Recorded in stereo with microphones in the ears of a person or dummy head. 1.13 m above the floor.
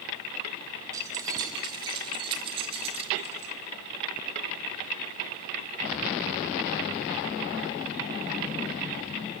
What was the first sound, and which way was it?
Keys jangling, 20° right (ahead or behind).